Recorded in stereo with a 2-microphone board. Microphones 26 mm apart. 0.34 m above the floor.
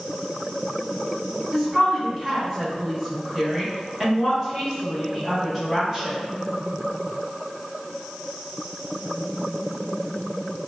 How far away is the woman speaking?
About 0.9 m.